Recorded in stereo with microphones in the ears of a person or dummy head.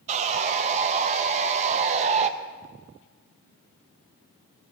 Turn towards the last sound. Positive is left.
turn(degrees=-40)  # may be behind; listen again after turning